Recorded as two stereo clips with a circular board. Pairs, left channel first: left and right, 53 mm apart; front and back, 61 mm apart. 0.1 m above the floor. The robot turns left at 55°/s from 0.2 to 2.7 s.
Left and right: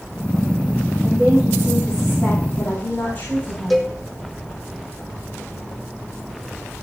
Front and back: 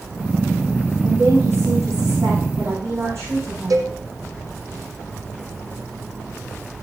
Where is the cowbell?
Straight behind, 2.5 m.